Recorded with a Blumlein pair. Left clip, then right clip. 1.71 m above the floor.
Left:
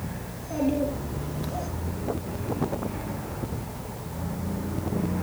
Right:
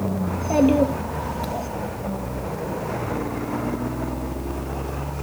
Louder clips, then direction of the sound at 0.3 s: Right 9 dB; 40° right.